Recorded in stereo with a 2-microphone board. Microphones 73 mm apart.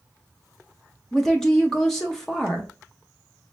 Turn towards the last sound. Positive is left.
turn(degrees=5)  # may be behind; listen again after turning